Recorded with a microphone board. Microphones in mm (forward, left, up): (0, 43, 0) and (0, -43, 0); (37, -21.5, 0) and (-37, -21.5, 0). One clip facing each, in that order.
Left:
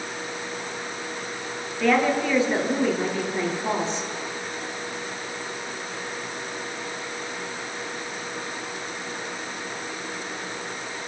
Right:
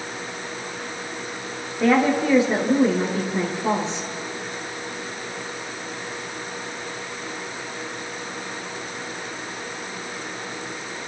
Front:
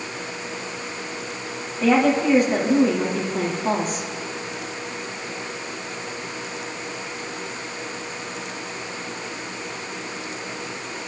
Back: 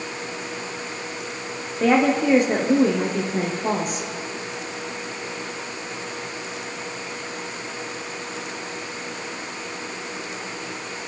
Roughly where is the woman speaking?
Behind.